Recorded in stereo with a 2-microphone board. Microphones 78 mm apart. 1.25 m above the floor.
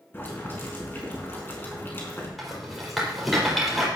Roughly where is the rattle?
Centre.